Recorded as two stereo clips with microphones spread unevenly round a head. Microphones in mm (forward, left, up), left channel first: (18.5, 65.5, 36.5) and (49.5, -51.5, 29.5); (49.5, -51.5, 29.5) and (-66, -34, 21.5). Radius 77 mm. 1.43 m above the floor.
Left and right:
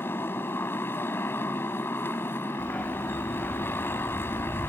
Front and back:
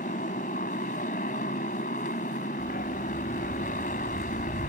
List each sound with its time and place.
0.0 s a motorcycle: 35° left
2.6 s a dog barking: 25° left